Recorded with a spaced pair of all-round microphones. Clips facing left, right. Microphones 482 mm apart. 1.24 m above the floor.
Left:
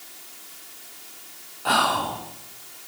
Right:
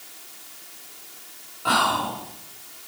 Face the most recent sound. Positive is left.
turn(degrees=5)  # may be behind; listen again after turning